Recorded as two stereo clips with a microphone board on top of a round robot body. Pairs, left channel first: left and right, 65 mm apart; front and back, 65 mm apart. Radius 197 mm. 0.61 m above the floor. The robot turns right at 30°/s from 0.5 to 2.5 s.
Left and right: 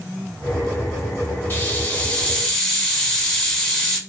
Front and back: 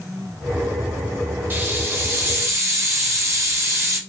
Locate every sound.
1.5 s a hiss: 135° left, 1.4 m; by 4.0 s 165° left, 1.4 m